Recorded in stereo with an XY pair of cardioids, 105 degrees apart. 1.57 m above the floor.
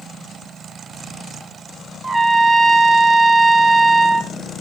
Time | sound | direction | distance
2.0 | a trumpet | 25° right | 1.4 m